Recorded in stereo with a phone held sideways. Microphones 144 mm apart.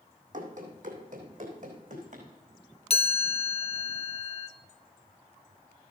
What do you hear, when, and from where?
0.3 s running footsteps: 60° right (ahead or behind), 2.5 m; by 2.3 s 65° right (ahead or behind), 4 m
2.9 s a chime: 45° left (ahead or behind), 1.0 m